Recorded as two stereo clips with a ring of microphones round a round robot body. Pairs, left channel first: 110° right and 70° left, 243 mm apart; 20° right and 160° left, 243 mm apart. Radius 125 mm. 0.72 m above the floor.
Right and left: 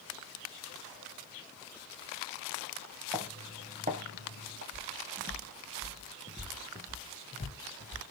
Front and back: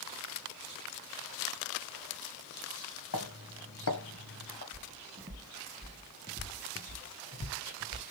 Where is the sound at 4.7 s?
115° left, 1.2 m; by 8.0 s 55° right, 1.3 m.